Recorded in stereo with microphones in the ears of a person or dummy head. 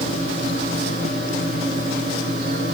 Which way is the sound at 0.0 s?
45° right (ahead or behind).